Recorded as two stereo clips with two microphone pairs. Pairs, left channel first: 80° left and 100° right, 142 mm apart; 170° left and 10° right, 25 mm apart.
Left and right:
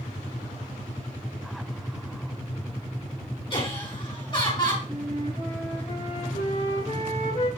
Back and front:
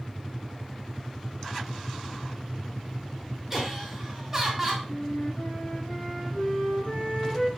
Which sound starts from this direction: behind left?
A flute, at 4.9 s.